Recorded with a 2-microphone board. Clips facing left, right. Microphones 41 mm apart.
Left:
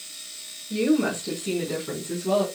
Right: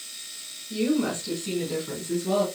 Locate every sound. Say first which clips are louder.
0.7 s a woman speaking: left 3 dB; 20° left (ahead or behind), 4.5 m; by 2.5 s 10° left (ahead or behind), 4 m